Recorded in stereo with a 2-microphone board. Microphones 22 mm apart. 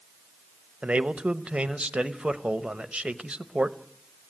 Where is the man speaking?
85° right, 0.9 m.